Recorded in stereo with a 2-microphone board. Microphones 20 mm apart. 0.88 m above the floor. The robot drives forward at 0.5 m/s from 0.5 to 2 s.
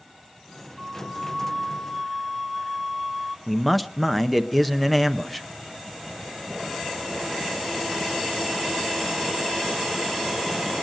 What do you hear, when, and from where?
0.8 s a flute: centre (ahead or behind), 1.1 m
3.5 s a man speaking: centre (ahead or behind), 0.6 m